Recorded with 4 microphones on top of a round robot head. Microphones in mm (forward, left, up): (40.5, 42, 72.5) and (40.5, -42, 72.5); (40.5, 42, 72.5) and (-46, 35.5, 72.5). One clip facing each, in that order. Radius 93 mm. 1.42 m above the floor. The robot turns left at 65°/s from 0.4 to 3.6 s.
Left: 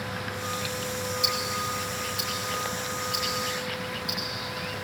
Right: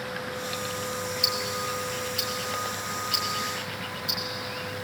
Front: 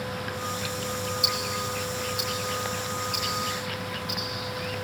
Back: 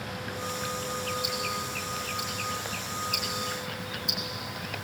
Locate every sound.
1.2 s ticking: 5° right, 3.5 m; by 4.8 s 160° right, 3.5 m